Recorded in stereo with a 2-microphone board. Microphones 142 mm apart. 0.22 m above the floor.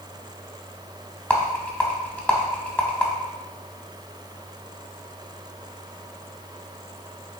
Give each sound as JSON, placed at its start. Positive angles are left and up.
{"t": 1.3, "sound": "a rattle", "side_deg": 10, "distance_m": 0.6}